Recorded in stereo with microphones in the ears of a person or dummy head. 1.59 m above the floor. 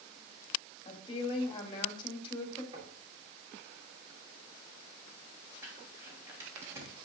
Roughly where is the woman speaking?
Left.